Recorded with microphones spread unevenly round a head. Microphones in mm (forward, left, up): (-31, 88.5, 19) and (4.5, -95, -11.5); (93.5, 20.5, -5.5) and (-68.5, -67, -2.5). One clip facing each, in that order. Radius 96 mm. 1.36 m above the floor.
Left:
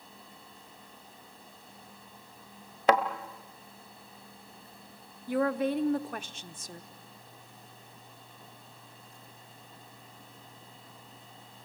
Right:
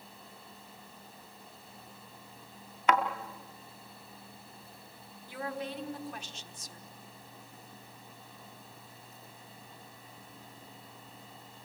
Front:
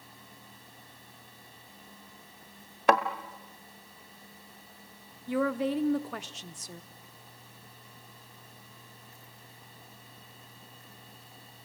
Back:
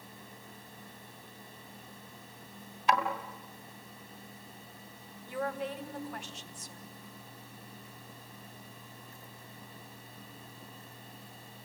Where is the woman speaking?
55° left, 0.9 m.